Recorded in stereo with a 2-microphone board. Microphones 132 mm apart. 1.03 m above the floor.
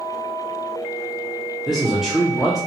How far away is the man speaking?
About 0.5 m.